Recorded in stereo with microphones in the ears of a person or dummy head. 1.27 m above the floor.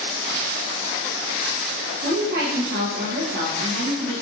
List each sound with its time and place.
2.0 s a woman speaking: 55° right (ahead or behind), 0.9 m